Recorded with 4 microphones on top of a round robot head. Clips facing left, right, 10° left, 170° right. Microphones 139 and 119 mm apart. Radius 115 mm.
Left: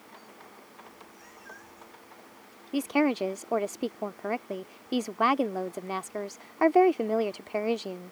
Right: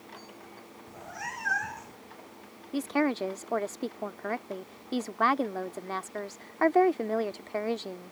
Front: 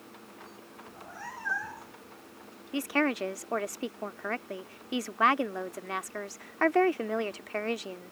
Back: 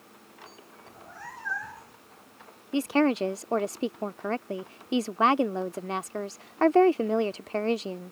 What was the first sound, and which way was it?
A cat meowing, 75° right.